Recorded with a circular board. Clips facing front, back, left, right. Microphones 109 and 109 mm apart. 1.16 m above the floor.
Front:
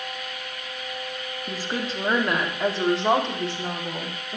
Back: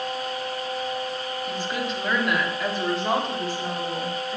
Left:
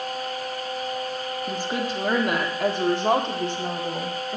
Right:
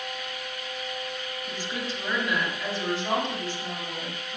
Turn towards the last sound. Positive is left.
turn(degrees=60)